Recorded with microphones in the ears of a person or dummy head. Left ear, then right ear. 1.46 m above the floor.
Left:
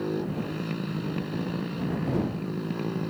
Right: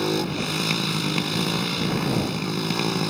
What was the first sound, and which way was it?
A motorcycle, 75° right (ahead or behind).